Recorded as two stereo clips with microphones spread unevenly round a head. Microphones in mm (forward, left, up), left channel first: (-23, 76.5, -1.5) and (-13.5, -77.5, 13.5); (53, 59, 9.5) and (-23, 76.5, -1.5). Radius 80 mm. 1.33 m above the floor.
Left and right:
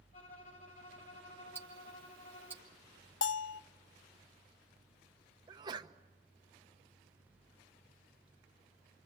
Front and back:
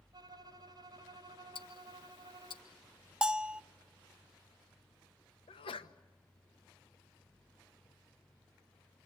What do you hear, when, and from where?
0.1 s a violin: 130° left, 3.5 m
1.6 s ticking: 5° right, 1.8 m
3.2 s a bell: 85° left, 0.5 m
5.5 s a sneeze: 20° right, 1.3 m